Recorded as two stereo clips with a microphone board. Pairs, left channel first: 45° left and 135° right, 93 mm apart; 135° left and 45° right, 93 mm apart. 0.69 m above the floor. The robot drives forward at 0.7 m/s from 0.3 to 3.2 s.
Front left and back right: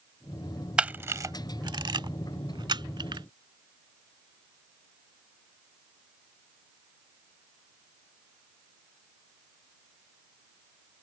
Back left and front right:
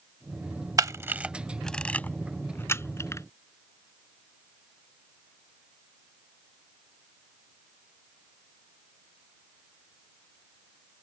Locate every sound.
0.8 s a camera shutter: 60° right; by 3.3 s 170° right